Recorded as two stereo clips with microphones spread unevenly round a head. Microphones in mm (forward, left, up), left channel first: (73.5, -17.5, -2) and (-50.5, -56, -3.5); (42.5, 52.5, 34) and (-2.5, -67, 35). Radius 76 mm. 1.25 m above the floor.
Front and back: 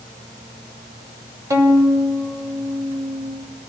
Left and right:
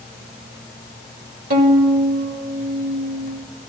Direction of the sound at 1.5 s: 95° right.